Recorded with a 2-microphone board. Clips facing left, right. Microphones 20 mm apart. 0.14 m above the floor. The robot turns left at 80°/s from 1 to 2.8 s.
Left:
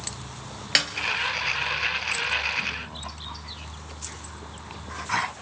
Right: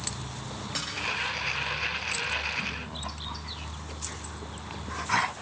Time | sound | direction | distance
0.8 | a snare drum | 65° left (ahead or behind) | 1.5 m